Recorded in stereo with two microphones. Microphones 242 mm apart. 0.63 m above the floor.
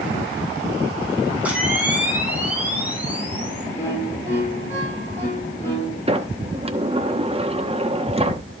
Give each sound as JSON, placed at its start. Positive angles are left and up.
{"t": 1.4, "sound": "a camera shutter", "side_deg": -5, "distance_m": 4.0}
{"t": 3.8, "sound": "a violin", "side_deg": 10, "distance_m": 6.5}
{"t": 6.1, "sound": "a sliding door", "side_deg": -25, "distance_m": 1.1}